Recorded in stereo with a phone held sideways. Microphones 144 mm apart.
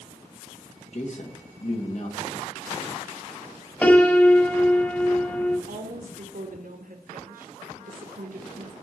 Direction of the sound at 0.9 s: 55° left (ahead or behind).